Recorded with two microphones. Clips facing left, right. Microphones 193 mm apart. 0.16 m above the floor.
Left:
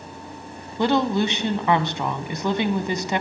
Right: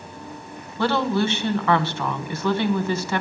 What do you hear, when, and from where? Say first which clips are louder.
0.8 s a woman speaking: left 1 dB; 15° left (ahead or behind), 1.2 m